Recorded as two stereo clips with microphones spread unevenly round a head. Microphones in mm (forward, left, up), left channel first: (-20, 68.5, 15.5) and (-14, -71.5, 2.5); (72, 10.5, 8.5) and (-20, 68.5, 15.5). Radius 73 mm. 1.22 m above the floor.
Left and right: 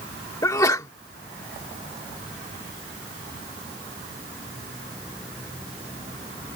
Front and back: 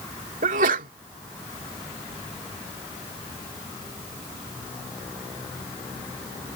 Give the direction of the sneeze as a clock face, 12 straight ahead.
7 o'clock.